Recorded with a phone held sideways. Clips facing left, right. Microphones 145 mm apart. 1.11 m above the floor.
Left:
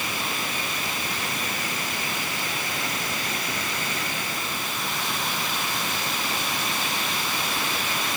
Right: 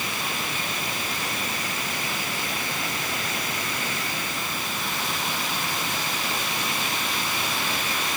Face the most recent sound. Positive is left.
No sound to turn to.